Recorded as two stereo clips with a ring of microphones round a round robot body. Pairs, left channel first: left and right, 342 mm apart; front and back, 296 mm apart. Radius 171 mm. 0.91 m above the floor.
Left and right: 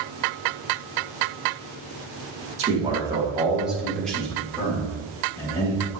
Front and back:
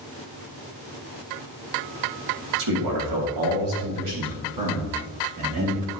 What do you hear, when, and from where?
2.6 s a man speaking: 160° right, 2 m; by 6.0 s 165° left, 4.5 m